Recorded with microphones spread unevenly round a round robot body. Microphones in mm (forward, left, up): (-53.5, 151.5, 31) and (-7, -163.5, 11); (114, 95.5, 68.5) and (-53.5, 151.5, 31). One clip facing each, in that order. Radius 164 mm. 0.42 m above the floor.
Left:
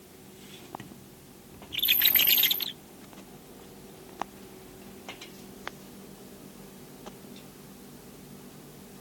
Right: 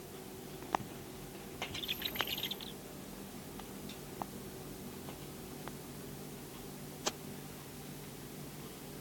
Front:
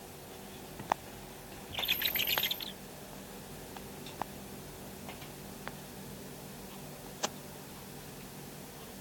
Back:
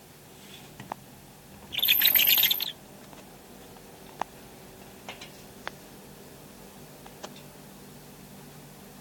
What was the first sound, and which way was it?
Only background noise.